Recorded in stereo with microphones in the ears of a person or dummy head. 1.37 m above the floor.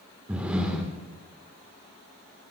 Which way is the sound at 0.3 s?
5° right (ahead or behind).